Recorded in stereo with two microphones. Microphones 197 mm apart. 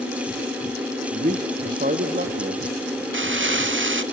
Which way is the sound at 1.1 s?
50° right (ahead or behind).